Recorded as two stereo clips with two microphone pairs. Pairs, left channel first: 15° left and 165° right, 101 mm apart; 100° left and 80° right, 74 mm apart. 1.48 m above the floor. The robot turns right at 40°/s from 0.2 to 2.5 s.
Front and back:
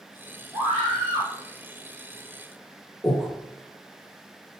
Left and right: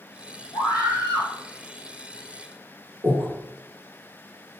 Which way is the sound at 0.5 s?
125° left.